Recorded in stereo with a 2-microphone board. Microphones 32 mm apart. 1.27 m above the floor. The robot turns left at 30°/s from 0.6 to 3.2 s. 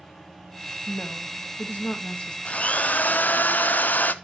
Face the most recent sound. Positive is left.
turn(degrees=65)  # may be behind; listen again after turning